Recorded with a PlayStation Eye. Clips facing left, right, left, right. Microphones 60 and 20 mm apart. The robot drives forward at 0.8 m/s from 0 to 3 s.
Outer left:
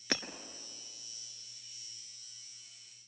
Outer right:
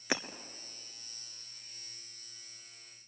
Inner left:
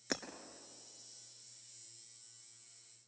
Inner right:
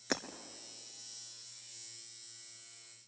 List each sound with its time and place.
0.1 s breaking glass: 15° right (ahead or behind), 1.1 m